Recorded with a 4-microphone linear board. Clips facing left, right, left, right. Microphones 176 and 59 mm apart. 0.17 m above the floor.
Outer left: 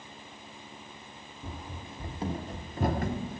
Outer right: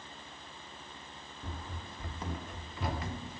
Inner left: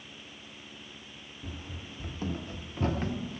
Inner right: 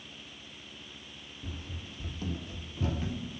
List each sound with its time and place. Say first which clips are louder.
1.4 s running footsteps: outer left 3 dB, inner left 1 dB; 10° left (ahead or behind), 1.2 m; by 3.4 s 55° left (ahead or behind), 1.6 m